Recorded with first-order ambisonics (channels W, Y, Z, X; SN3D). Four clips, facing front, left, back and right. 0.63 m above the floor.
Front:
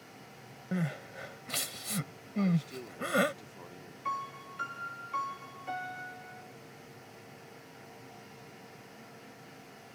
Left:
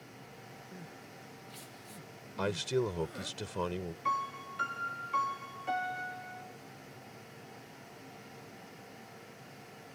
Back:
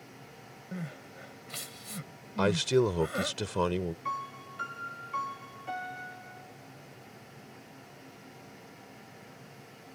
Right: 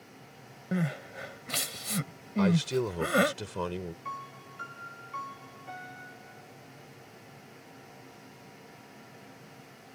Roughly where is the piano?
Left.